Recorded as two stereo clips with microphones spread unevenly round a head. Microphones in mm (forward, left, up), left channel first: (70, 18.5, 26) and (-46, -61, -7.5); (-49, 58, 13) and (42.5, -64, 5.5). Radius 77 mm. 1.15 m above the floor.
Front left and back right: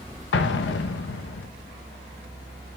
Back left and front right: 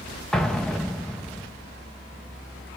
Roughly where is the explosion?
Ahead left.